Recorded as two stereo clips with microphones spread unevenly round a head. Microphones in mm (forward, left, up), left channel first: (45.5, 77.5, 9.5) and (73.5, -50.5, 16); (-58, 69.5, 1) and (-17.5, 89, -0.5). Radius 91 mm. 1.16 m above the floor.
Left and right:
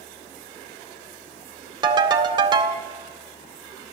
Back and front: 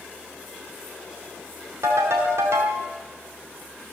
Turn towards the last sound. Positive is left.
turn(degrees=-25)